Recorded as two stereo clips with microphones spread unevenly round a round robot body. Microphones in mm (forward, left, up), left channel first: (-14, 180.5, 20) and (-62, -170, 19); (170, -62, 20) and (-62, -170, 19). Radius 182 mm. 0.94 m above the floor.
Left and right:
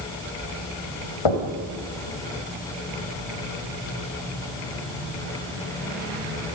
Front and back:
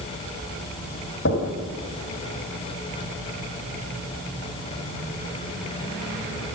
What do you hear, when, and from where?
1.2 s knocking: 85° left, 3 m